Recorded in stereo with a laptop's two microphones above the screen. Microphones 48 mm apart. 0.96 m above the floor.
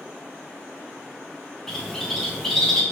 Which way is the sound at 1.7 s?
5° left (ahead or behind).